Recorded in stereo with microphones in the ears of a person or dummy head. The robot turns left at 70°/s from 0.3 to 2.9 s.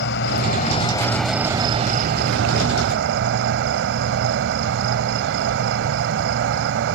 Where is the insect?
70° left; by 7.0 s 115° right.